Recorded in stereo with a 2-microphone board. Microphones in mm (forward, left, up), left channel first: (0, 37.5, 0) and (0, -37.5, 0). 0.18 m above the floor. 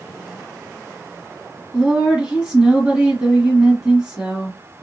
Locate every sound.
1.7 s a woman speaking: 15° right (ahead or behind), 1.6 m